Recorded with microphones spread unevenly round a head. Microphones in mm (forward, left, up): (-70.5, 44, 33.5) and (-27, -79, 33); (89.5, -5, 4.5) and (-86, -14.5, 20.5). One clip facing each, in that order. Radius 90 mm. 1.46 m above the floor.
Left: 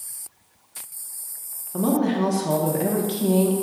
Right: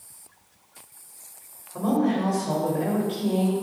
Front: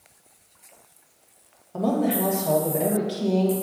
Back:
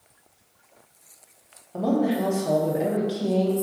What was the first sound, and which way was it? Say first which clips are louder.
A woman speaking: left 2 dB, even; 100° left.